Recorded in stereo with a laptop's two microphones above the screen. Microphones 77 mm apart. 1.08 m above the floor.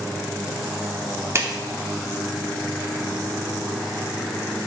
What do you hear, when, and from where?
1.4 s a clap: 35° right (ahead or behind), 2.5 m